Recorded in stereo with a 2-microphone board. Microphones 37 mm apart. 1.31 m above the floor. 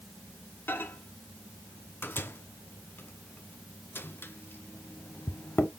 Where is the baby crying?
I don't hear a baby crying.